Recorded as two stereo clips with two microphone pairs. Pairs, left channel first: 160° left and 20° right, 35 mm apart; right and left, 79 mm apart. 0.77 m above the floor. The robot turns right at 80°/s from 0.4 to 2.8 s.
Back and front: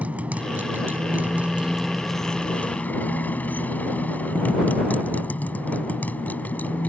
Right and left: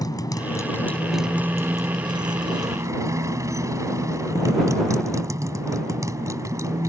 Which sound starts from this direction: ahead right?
A motorcycle, at 0.0 s.